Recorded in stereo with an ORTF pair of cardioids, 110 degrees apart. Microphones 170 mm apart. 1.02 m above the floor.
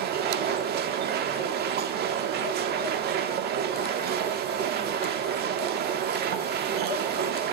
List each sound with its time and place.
0.0 s a machine running: 70° right, 1.6 m